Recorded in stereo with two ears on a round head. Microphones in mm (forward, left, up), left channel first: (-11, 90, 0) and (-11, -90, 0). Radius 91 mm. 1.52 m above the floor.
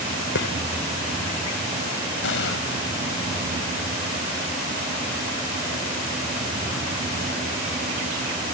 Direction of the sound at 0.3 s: 65° left (ahead or behind).